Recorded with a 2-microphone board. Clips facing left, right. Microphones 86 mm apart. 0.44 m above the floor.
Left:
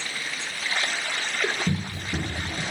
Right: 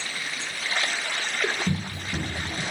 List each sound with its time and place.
1.7 s running footsteps: 10° left (ahead or behind), 1.4 m